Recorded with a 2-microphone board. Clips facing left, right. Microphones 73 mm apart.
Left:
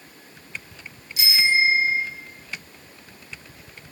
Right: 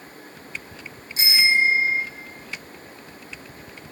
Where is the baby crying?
No baby crying in this recording.